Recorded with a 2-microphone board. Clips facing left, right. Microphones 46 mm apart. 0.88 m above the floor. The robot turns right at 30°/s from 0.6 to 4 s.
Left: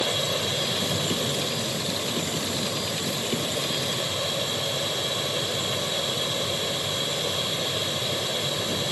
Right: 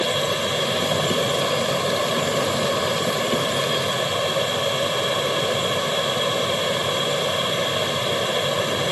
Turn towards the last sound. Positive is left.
turn(degrees=-45)